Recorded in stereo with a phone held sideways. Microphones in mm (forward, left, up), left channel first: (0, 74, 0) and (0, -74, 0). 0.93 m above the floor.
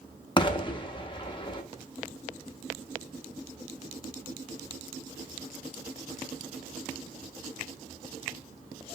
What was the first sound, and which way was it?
An explosion, 30° left (ahead or behind).